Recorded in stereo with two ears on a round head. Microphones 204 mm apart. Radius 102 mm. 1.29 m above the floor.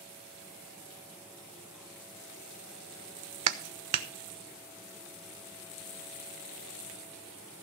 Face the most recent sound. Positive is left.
turn(degrees=-80)